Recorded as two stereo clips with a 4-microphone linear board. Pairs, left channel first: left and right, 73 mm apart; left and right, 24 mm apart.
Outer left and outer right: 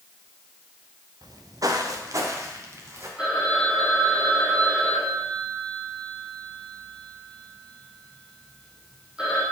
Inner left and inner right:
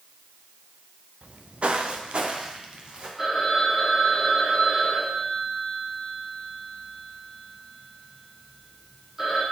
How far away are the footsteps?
About 0.9 m.